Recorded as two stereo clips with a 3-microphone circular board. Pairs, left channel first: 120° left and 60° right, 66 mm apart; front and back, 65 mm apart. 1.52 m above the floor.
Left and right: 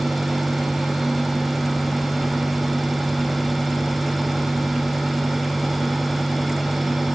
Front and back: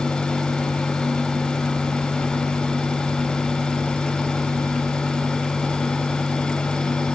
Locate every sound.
Only background noise.